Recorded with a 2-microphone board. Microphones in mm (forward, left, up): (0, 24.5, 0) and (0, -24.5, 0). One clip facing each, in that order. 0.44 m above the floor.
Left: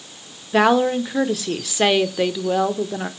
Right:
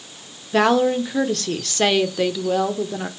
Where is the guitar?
I don't hear a guitar.